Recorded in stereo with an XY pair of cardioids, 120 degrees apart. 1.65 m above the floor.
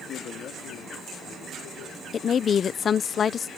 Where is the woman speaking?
45° left.